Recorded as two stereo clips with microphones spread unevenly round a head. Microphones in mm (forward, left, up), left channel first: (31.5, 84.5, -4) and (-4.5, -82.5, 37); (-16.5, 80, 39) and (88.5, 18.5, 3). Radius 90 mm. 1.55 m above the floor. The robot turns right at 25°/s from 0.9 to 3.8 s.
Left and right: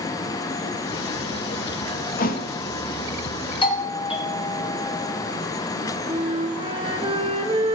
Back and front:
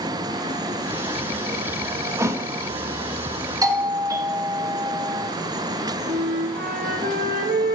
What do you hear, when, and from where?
2.2 s a thud: 45° left, 1.0 m; by 2.5 s 55° left, 1.0 m
3.6 s a doorbell: 20° left, 1.8 m; by 5.3 s 25° left, 1.8 m
6.1 s a flute: 55° right, 1.4 m